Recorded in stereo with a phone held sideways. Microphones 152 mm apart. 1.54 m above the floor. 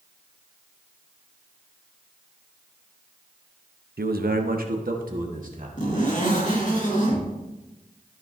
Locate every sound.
4.0 s a man speaking: 85° right, 0.6 m; by 5.7 s 60° right (ahead or behind), 2 m
5.8 s a zipper: 55° left (ahead or behind), 3 m